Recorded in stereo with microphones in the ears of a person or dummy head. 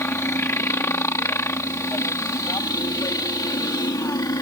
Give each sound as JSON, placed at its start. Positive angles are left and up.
{"t": 0.0, "sound": "a helicopter", "side_deg": 5}